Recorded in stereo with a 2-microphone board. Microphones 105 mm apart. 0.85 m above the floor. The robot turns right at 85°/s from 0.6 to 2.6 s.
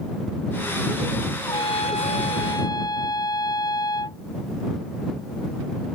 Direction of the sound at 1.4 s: 40° left.